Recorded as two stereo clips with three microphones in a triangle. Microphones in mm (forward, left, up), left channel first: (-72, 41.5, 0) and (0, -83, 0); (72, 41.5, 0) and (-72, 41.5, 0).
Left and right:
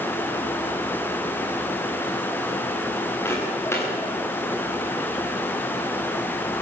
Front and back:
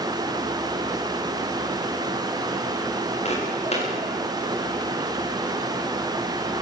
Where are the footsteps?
45° left, 8.5 m.